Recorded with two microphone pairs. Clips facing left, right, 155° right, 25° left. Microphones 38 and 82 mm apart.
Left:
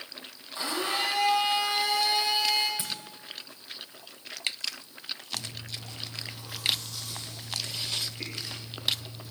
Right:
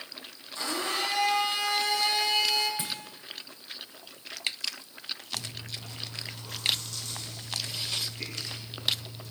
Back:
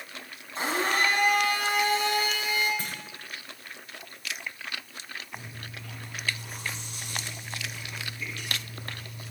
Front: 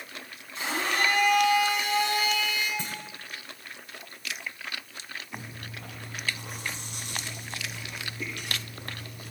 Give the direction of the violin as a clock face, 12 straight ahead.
No violin in this recording.